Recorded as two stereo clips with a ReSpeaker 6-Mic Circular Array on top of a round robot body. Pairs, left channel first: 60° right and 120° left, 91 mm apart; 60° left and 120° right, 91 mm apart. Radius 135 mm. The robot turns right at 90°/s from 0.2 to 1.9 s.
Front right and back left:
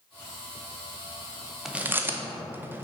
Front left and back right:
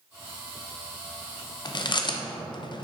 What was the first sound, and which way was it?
Chewing, 35° left.